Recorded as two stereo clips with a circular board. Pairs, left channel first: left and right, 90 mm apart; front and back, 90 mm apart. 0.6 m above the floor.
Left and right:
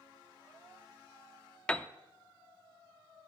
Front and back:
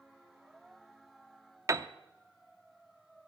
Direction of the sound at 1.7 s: 160° left.